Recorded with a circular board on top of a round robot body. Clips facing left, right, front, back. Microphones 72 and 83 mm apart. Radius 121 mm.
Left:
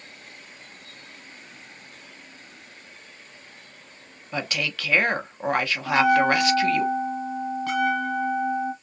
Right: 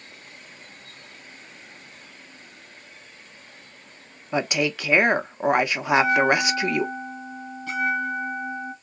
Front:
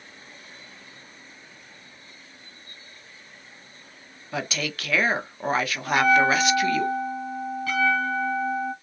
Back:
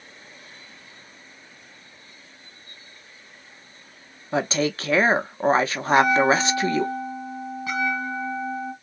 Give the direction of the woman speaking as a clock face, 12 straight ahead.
5 o'clock.